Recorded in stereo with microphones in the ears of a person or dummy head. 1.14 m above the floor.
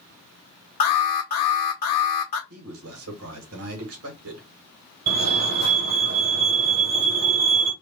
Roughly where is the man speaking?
Right.